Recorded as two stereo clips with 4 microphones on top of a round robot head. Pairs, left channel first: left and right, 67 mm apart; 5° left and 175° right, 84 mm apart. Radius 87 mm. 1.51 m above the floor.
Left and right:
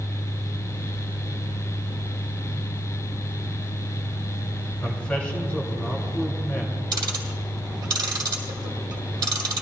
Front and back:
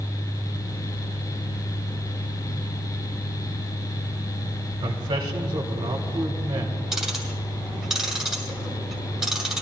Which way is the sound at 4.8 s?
165° left.